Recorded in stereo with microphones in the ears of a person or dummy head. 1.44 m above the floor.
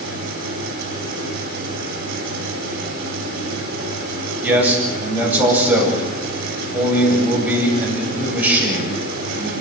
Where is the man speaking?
10° right (ahead or behind), 10 m.